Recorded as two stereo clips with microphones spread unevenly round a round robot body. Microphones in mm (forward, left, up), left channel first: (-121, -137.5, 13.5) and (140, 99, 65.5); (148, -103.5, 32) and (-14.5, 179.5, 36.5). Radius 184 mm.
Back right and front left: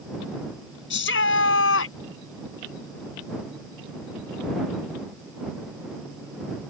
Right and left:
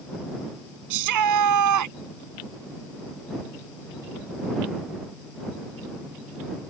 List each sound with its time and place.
0.9 s a shout: 160° left; by 2.0 s 165° left